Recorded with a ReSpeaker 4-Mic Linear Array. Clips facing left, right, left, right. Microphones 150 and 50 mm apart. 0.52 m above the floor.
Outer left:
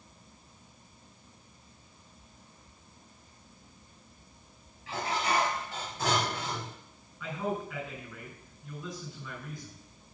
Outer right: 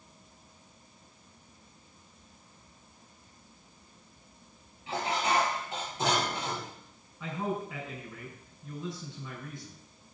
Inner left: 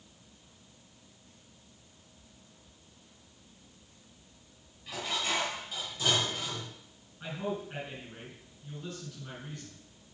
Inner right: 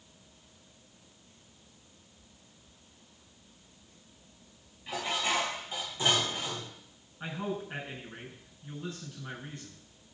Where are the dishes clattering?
25° right (ahead or behind), 6.5 m.